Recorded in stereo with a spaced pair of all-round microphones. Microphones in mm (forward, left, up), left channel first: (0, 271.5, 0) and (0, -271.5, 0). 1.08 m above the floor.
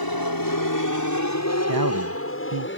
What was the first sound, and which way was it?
An aircraft, 40° left (ahead or behind).